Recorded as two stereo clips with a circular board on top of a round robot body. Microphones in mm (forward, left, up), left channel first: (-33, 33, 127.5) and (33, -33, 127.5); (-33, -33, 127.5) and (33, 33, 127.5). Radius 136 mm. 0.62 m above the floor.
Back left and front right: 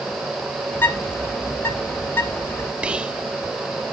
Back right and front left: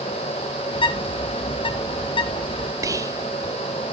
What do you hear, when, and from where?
0.7 s a bird: 160° right, 0.8 m
2.8 s whispering: 25° left, 0.6 m